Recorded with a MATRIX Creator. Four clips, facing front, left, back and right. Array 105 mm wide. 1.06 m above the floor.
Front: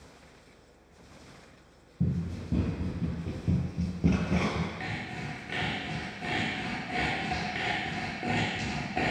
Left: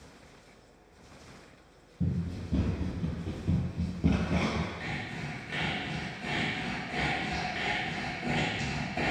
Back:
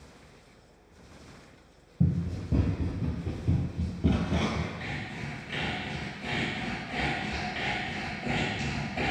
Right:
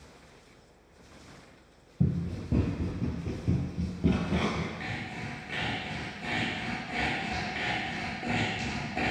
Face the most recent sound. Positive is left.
turn(degrees=-15)